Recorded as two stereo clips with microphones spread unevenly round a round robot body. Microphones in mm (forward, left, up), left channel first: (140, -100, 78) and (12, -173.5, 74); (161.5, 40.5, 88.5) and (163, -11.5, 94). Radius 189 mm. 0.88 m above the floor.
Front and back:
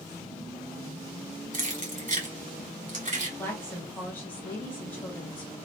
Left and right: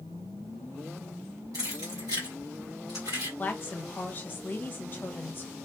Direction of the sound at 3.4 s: 105° left.